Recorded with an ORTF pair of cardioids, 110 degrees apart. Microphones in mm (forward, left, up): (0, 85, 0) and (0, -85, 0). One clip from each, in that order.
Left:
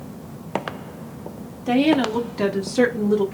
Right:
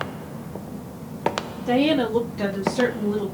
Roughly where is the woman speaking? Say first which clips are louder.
Left 2 dB; ahead.